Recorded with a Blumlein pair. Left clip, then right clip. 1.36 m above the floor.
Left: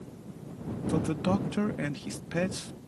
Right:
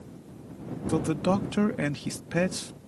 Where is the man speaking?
15° right.